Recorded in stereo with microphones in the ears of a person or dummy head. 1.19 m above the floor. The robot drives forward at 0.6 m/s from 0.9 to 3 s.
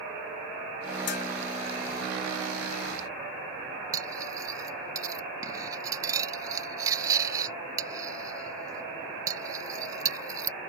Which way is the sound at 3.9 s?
20° right (ahead or behind).